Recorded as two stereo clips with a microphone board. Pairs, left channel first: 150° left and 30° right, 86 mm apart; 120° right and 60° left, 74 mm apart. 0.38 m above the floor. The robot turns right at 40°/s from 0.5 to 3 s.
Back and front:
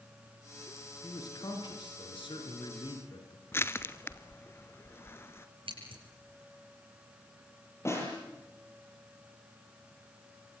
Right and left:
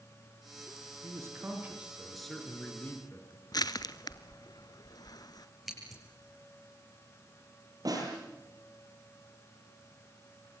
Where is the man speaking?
105° left, 5 m; by 3.4 s straight behind, 5 m.